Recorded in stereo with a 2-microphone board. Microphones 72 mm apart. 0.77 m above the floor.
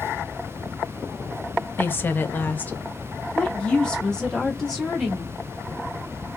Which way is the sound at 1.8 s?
30° left (ahead or behind).